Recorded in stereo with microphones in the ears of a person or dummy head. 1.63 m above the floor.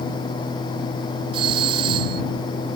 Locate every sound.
1.3 s a doorbell: 30° right (ahead or behind)